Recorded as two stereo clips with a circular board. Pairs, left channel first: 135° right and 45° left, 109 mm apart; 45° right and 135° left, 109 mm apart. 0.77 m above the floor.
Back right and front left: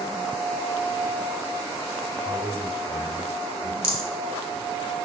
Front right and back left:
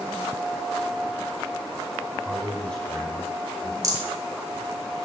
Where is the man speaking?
35° left, 4.5 m.